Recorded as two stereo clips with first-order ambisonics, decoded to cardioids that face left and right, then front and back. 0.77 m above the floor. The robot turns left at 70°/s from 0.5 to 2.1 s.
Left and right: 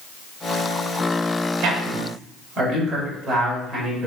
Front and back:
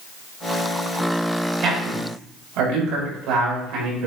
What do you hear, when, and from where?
1.6 s a man speaking: 125° right, 4 m; by 4.1 s 160° right, 4 m